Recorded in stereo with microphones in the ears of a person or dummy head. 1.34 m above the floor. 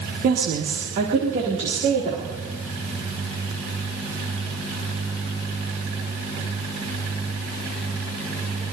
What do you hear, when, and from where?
0.2 s a woman speaking: 50° right (ahead or behind), 1.4 m; by 2.4 s 35° right (ahead or behind), 3.5 m